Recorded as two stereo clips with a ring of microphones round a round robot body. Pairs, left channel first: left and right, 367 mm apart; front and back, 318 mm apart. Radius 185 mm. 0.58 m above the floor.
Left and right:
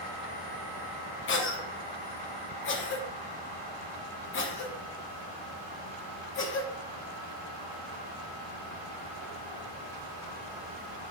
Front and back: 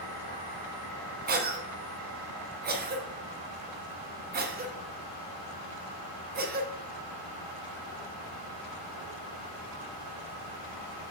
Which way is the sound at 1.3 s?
130° left.